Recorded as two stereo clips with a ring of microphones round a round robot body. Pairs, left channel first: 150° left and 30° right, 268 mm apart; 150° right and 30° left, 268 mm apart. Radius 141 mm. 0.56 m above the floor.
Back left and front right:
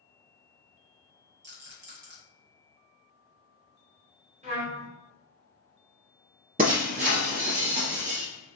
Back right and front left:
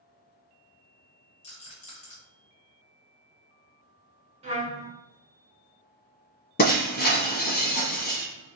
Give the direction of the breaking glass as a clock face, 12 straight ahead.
3 o'clock.